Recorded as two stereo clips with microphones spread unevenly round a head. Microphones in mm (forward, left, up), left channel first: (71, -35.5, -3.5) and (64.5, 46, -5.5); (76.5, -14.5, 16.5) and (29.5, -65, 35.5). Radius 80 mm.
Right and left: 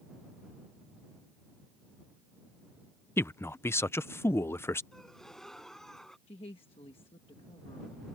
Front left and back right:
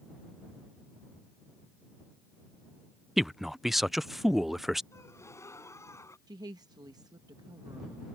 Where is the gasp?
Straight ahead.